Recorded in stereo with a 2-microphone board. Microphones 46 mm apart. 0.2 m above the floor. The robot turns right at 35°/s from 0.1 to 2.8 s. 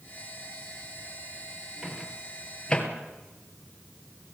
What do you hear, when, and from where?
1.8 s a microwave: 15° right (ahead or behind), 2.5 m; by 2.9 s 20° left (ahead or behind), 2.5 m